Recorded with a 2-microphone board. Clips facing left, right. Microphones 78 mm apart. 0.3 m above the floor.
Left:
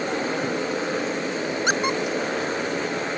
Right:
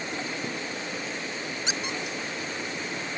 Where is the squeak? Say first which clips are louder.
Left 11 dB; 55° left (ahead or behind).